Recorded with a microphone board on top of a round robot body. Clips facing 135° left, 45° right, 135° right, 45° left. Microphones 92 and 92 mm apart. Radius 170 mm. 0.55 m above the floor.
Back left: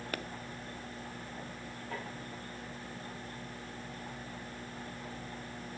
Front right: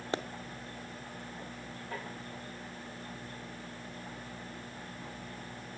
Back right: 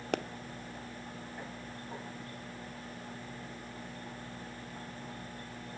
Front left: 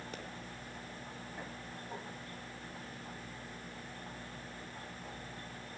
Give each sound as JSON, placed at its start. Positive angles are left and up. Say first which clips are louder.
{"t": 0.1, "sound": "a pop", "louder": "front right 6 dB, back right 16 dB", "azimuth_deg": -110, "distance_m": 1.0}